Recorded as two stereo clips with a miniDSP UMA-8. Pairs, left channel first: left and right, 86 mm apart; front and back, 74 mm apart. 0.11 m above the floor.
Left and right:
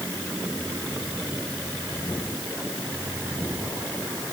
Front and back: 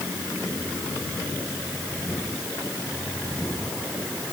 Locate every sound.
Only background noise.